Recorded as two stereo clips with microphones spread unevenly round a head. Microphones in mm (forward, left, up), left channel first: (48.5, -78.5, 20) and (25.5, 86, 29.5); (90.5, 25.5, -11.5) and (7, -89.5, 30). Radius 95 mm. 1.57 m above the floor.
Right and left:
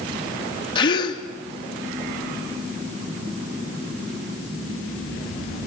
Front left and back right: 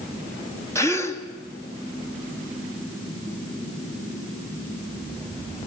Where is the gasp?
20° right, 2.5 m.